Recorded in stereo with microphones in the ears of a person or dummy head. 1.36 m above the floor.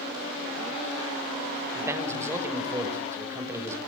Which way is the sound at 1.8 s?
10° right (ahead or behind).